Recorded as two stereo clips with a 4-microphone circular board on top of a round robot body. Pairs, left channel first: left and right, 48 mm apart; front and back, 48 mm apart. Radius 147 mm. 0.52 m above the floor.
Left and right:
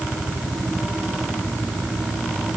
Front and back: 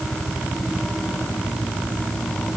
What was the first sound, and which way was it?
Only background noise.